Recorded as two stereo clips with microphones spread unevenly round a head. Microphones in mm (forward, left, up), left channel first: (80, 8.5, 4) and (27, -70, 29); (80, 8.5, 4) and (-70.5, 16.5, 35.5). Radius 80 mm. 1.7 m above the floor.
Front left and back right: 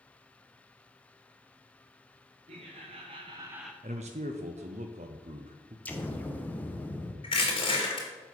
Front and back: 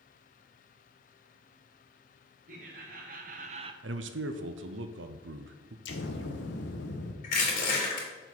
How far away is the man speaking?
About 0.7 m.